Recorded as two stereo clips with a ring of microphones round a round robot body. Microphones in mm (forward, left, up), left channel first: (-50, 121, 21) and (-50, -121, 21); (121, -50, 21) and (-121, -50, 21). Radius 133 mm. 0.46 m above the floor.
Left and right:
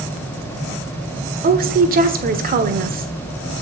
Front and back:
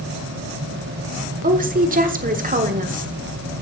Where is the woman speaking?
135° right, 1.3 m.